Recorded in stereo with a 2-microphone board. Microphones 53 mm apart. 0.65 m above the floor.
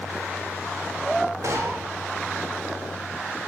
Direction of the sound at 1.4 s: 75° right (ahead or behind).